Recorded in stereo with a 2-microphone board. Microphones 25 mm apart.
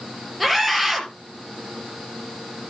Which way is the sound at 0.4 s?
5° left (ahead or behind).